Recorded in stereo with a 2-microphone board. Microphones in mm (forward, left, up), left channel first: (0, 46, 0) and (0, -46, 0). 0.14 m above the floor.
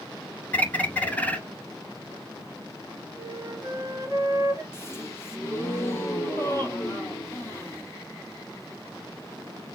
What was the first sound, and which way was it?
A bird, 15° left (ahead or behind).